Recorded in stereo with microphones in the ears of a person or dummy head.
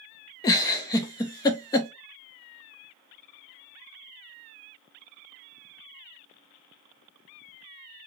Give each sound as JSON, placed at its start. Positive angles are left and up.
{"t": 0.4, "sound": "a giggle", "side_deg": 20, "distance_m": 0.6}